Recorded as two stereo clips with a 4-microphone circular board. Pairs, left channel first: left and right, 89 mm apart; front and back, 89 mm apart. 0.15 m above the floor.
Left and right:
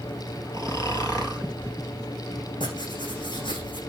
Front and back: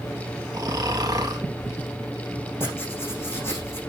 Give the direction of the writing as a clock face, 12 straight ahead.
10 o'clock.